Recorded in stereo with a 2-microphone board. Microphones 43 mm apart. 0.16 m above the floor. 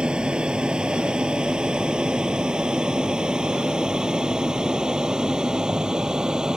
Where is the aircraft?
20° right (ahead or behind); by 6.6 s 15° right (ahead or behind).